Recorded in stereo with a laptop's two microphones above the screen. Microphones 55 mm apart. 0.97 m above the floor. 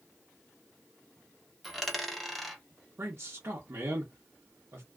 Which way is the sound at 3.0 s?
50° right (ahead or behind).